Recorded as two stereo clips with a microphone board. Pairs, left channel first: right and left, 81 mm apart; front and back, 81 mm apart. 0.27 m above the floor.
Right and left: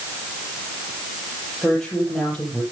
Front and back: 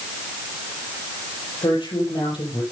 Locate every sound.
1.6 s a woman speaking: 5° right, 6.5 m